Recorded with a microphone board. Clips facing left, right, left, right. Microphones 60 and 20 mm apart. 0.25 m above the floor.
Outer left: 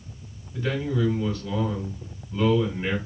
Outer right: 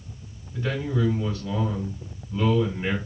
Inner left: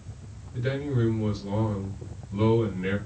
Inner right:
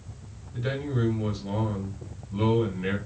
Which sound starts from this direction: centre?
A man speaking, at 0.5 s.